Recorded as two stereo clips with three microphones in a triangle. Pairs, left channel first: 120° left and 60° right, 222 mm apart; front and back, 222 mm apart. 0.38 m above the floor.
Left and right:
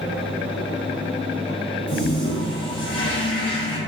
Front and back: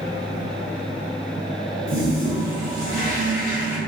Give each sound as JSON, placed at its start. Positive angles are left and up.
{"t": 1.9, "sound": "a toilet flushing", "azimuth_deg": 130, "distance_m": 1.5}